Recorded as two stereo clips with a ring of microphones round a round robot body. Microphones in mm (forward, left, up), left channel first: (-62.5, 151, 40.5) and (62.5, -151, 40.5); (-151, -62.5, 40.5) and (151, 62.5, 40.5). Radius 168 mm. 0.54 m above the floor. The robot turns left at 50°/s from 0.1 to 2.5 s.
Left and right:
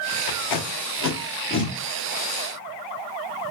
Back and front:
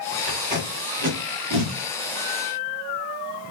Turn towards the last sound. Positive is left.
turn(degrees=-10)